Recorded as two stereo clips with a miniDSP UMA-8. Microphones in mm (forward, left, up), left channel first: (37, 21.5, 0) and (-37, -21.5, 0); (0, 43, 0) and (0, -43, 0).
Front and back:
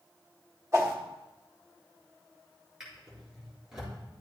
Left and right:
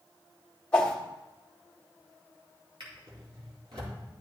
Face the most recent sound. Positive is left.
turn(degrees=-65)